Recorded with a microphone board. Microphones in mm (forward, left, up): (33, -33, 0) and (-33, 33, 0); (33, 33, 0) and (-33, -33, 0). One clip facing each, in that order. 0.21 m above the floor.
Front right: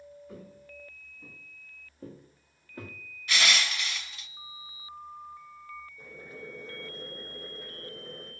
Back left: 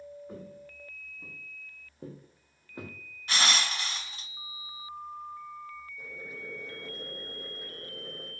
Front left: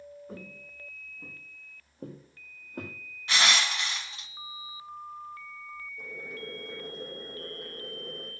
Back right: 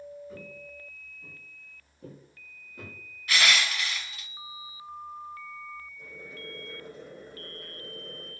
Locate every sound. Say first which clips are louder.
0.3 s footsteps: back left 2 dB, back right 1 dB; 80° left, 6 m; by 3.0 s 65° left, 5 m
3.3 s crushing: even, back right 1 dB; 95° left, 1.0 m
6.0 s boiling: back left 1 dB, front left 4 dB; 60° left, 9.5 m